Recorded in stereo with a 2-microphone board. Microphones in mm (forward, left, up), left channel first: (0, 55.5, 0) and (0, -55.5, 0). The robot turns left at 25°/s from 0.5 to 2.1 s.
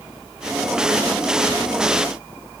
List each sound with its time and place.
Only background noise.